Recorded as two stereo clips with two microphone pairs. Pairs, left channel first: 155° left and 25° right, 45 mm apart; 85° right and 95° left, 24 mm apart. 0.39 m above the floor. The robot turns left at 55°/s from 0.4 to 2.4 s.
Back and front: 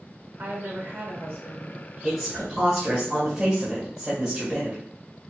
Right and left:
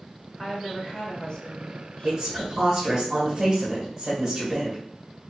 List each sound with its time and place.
0.4 s a woman speaking: 5° left, 1.6 m; by 2.6 s 105° right, 1.6 m
2.0 s a woman speaking: 80° left, 1.8 m; by 4.8 s 60° left, 1.8 m